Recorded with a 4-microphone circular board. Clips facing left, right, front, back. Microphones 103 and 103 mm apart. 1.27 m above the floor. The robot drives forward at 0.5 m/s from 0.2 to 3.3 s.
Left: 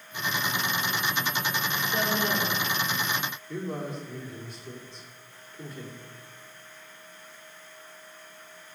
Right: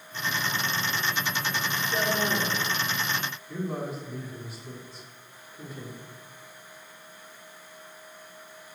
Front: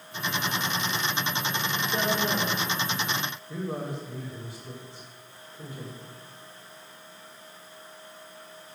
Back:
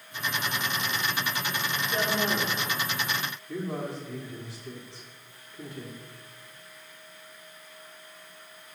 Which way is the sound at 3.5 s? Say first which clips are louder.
Right 2 dB, back 1 dB; 175° right.